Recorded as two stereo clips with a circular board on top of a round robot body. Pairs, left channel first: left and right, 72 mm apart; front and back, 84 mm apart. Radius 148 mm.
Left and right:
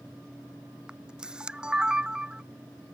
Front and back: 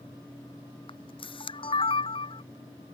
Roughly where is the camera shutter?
Ahead.